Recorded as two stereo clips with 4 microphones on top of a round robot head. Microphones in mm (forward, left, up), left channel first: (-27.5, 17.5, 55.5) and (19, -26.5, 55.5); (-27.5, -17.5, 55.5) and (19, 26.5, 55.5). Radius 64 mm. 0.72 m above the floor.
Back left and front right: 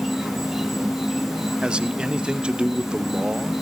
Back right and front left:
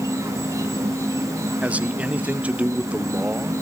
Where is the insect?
40° left, 1.0 m.